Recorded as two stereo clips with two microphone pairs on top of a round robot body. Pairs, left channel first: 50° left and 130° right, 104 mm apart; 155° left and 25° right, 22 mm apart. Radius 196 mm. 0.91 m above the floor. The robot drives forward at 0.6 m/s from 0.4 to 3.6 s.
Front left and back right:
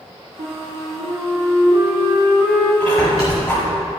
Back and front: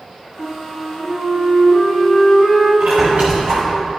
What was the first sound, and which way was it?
A flute, 170° right.